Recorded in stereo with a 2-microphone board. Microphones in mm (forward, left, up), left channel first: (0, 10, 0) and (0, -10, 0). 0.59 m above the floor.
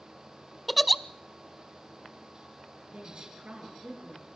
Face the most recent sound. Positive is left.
turn(degrees=-75)  # may be behind; listen again after turning